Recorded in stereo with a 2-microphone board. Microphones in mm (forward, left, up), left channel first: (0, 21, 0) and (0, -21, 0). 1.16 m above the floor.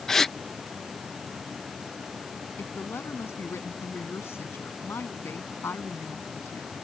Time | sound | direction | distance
0.1 | a gasp | 10° left (ahead or behind) | ?
2.6 | a woman speaking | 70° left (ahead or behind) | ?